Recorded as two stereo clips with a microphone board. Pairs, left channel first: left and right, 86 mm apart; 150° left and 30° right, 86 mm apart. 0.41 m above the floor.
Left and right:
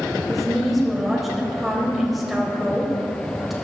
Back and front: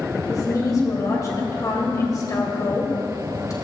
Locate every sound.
0.3 s a woman speaking: 175° right, 1.9 m